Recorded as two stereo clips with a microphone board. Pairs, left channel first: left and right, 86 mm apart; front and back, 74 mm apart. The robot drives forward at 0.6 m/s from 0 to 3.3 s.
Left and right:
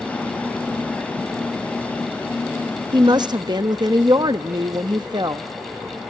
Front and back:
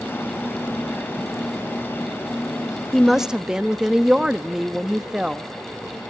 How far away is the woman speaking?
About 0.9 m.